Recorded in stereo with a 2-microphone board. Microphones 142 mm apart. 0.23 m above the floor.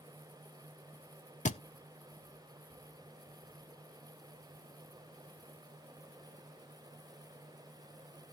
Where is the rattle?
I don't hear a rattle.